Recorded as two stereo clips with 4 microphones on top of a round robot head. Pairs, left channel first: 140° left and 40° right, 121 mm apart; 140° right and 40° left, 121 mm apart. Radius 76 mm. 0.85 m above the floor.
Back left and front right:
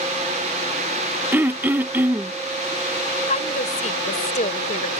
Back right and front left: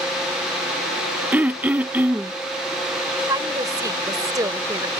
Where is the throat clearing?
5° right.